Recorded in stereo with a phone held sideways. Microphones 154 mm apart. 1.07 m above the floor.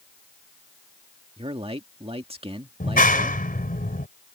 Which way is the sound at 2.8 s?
65° left (ahead or behind).